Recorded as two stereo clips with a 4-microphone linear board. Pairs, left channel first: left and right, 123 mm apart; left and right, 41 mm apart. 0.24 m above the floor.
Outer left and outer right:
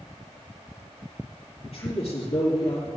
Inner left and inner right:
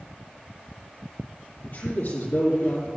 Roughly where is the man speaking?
Left.